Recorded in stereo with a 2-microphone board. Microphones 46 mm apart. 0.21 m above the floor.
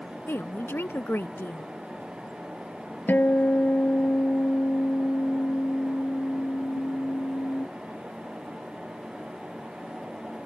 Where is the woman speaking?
55° left (ahead or behind).